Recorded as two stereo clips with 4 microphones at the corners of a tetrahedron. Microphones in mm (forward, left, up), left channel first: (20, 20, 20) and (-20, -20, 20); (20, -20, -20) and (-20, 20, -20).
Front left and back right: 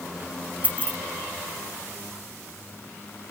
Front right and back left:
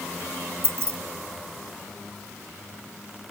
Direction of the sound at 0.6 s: 170° left.